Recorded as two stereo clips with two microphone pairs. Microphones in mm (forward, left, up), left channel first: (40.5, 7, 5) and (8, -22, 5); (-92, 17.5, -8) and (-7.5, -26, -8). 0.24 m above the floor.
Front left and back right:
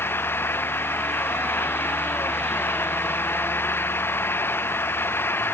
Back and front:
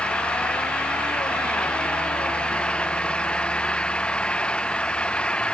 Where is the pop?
I don't hear a pop.